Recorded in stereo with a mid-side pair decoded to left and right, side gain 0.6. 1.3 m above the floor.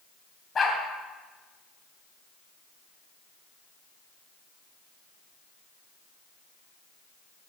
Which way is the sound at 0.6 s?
30° left.